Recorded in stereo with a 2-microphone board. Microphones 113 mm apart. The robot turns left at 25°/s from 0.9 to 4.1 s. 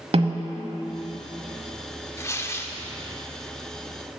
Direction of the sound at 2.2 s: 25° left (ahead or behind).